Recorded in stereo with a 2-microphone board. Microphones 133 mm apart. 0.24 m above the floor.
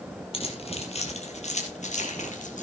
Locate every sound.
0.3 s keys jangling: 45° left (ahead or behind), 4 m; by 2.6 s 70° left (ahead or behind), 4.5 m